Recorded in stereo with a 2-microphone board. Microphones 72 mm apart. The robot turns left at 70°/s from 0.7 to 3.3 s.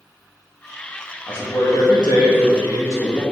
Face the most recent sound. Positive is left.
turn(degrees=15)